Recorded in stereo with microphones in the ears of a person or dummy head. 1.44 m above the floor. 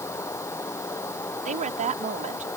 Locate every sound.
0.0 s running water: 20° left (ahead or behind)
1.4 s a woman speaking: 30° right (ahead or behind)